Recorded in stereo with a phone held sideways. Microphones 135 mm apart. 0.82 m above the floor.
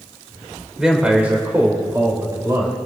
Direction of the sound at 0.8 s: 5° right (ahead or behind).